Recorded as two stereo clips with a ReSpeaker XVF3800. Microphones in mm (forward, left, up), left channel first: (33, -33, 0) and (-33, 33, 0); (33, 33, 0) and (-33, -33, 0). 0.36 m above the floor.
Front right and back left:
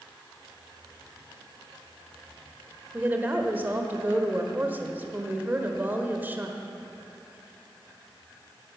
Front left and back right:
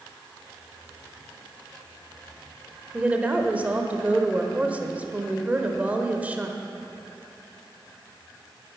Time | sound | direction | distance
2.9 | a woman speaking | 175° left | 1.2 m